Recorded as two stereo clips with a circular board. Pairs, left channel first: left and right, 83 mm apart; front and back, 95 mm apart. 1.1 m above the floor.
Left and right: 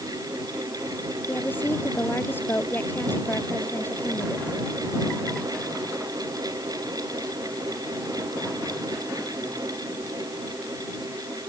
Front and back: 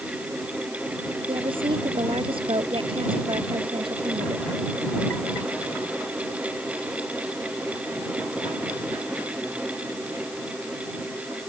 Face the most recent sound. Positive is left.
turn(degrees=155)